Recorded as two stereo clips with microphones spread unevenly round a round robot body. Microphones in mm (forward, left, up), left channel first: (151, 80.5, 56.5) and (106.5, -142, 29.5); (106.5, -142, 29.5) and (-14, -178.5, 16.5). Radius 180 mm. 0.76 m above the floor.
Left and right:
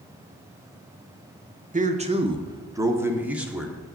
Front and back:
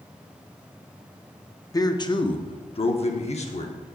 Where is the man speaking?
50° right, 1.3 m; by 3.8 s 15° right, 1.8 m.